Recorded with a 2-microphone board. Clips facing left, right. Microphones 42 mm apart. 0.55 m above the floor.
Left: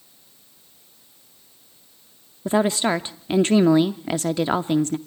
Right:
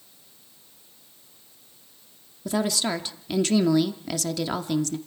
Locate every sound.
2.5 s a woman speaking: 30° left (ahead or behind), 0.7 m